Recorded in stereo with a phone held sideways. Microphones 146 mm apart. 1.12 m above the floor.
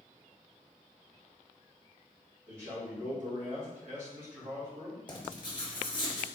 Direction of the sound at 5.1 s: 30° left (ahead or behind).